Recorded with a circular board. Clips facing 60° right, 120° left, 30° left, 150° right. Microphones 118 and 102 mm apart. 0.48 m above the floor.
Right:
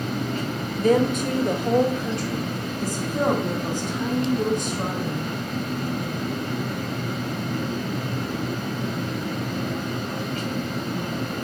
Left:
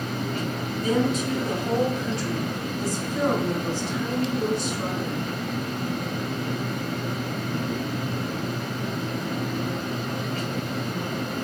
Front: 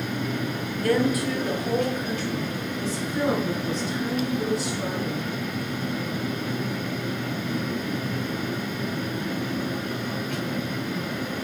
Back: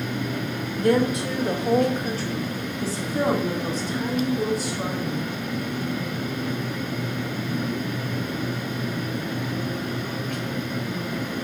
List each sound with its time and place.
0.8 s a woman speaking: 85° right, 1.7 m; by 5.3 s 105° right, 4 m